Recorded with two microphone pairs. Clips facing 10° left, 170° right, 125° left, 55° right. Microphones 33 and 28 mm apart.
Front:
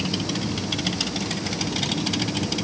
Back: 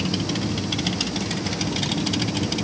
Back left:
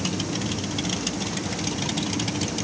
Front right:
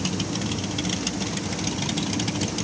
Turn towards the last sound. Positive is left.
No sound to turn to.